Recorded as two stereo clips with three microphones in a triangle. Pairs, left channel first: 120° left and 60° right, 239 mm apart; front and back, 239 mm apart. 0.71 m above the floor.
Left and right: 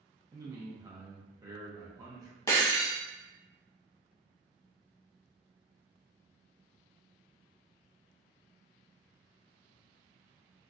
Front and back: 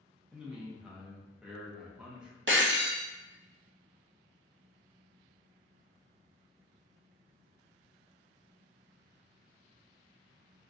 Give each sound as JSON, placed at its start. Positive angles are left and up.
{"t": 0.3, "sound": "a man speaking", "azimuth_deg": -100, "distance_m": 0.7}
{"t": 2.5, "sound": "breaking glass", "azimuth_deg": -170, "distance_m": 0.8}